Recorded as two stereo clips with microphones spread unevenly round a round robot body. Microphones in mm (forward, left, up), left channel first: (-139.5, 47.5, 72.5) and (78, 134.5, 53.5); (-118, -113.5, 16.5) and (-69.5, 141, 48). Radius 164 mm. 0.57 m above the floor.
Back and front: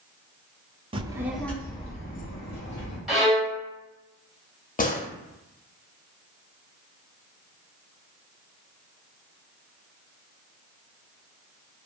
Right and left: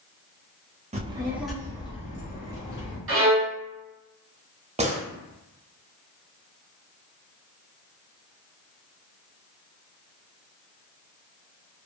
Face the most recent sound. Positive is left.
turn(degrees=150)